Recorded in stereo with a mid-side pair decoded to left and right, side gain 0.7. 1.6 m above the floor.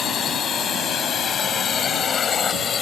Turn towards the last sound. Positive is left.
turn(degrees=30)